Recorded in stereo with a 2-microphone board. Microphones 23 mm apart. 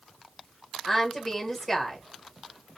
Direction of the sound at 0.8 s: 5° left (ahead or behind).